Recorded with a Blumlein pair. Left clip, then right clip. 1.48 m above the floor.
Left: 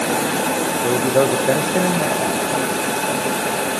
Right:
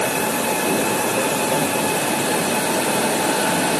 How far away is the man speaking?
About 1.8 m.